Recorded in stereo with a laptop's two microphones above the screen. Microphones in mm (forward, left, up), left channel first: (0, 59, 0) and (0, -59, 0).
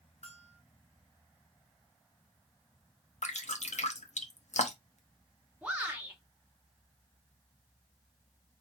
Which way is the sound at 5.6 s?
10° right (ahead or behind).